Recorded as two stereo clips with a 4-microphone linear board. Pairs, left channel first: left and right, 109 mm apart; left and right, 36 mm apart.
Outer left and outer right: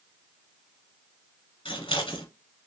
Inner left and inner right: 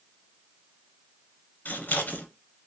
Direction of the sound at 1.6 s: 60° left (ahead or behind).